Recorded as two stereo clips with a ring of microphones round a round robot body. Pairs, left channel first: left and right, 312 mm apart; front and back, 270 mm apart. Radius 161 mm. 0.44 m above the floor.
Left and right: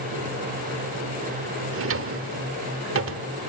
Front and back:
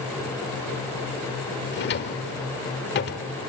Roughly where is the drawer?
Ahead right.